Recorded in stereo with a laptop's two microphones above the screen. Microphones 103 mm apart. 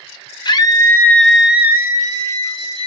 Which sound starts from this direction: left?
A scream, at 0.5 s.